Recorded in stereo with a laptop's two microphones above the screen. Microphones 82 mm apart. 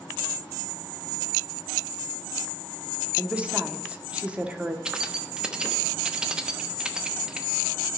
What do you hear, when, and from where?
3.2 s a woman speaking: 15° right (ahead or behind), 0.8 m
4.8 s keys jangling: 10° right (ahead or behind), 0.9 m